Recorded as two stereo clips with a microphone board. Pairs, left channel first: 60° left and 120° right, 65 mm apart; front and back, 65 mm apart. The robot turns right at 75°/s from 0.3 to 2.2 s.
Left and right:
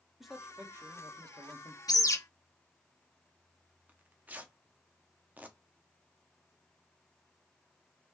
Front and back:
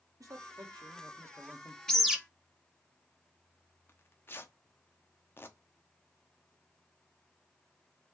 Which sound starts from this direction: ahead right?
Tearing paper, at 3.9 s.